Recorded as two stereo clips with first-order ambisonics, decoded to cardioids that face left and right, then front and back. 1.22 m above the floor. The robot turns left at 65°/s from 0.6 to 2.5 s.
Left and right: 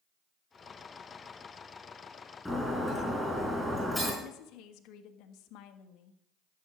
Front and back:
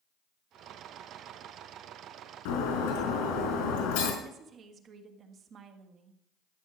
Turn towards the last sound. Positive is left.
turn(degrees=120)